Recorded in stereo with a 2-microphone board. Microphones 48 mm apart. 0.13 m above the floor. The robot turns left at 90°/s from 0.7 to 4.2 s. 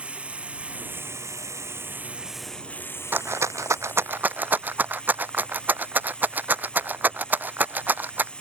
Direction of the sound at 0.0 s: 25° right.